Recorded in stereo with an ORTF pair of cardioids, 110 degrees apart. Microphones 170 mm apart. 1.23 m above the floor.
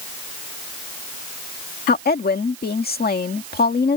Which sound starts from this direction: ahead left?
A woman speaking, at 1.9 s.